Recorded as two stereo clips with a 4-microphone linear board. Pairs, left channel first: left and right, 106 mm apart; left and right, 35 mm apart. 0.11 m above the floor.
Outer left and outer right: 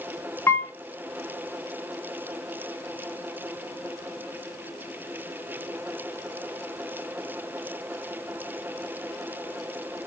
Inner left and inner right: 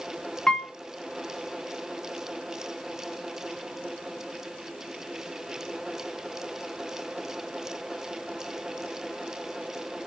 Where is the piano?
25° left (ahead or behind), 1.0 m.